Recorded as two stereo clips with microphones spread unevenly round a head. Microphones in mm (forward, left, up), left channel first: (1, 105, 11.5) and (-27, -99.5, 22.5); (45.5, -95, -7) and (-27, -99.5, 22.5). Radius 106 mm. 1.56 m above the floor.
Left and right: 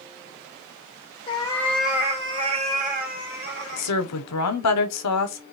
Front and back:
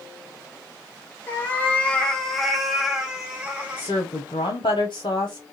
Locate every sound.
1.3 s a cat meowing: 85° left, 0.9 m; by 3.9 s 120° right, 1.7 m
3.8 s a woman speaking: 75° left, 0.8 m